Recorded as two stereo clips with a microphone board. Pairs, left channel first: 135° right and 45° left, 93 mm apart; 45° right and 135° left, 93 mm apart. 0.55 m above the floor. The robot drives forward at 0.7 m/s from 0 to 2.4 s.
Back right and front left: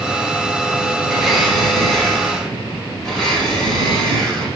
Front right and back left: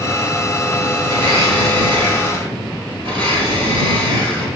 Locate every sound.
1.1 s a blender: 135° left, 3.5 m; by 4.5 s 145° left, 4 m